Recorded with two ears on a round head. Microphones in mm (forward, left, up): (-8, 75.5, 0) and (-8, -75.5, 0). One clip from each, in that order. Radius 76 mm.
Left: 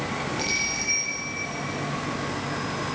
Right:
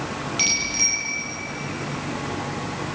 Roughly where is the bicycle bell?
Right.